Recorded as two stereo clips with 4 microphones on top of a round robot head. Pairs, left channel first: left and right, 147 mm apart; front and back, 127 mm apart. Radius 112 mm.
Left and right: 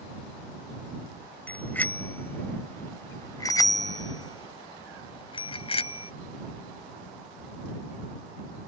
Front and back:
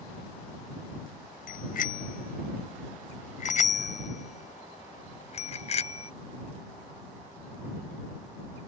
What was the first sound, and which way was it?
A bicycle bell, 10° left.